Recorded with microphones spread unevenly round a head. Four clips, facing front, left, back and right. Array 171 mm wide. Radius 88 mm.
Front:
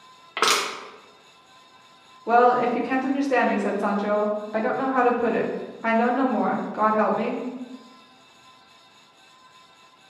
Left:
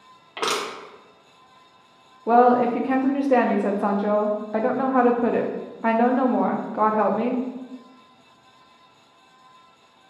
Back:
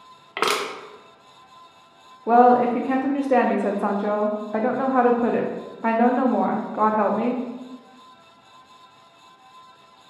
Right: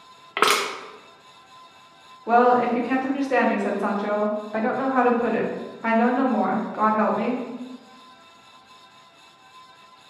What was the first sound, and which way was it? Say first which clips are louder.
Crushing: right 5 dB, even; 85° right.